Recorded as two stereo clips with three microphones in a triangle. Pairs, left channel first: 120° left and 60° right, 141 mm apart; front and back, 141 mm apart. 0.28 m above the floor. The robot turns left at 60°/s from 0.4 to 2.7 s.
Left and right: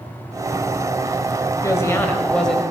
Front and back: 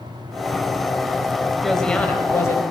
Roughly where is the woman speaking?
Left.